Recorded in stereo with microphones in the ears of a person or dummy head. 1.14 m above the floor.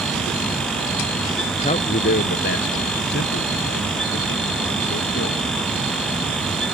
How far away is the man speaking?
About 0.8 m.